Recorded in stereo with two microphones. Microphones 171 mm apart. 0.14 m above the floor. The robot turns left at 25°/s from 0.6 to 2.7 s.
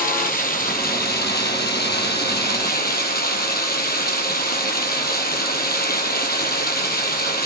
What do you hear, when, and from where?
0.0 s running water: 120° left, 1.4 m; by 7.5 s 70° left, 1.4 m